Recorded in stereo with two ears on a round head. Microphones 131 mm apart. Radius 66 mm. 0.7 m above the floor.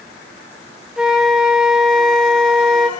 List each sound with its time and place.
1.0 s a flute: 5° right (ahead or behind), 0.6 m